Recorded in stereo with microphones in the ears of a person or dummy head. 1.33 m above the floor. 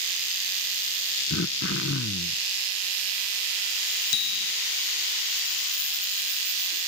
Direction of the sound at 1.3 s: 65° left (ahead or behind).